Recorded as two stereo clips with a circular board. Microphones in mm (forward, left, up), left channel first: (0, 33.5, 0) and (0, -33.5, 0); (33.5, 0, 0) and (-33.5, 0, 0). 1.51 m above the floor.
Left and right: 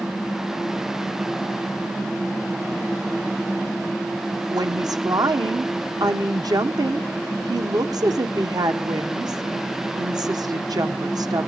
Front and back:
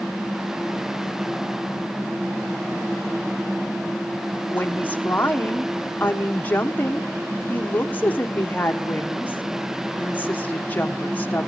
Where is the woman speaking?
65° right, 1.1 m.